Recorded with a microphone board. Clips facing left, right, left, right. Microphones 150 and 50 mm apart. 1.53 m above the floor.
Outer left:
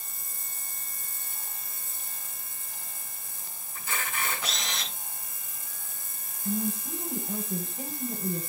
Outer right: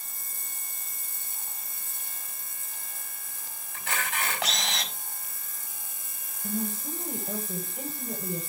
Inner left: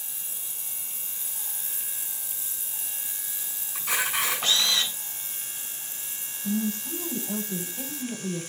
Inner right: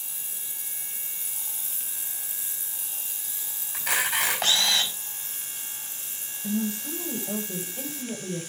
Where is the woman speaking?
85° right, 8.5 m.